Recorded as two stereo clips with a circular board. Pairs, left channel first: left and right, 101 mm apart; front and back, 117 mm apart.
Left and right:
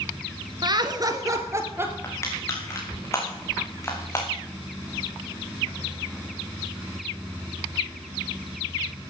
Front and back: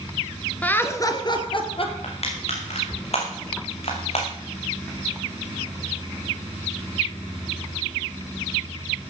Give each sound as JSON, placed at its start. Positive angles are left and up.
{"t": 0.6, "sound": "laughter", "azimuth_deg": -75, "distance_m": 1.6}
{"t": 2.0, "sound": "crushing", "azimuth_deg": 30, "distance_m": 3.5}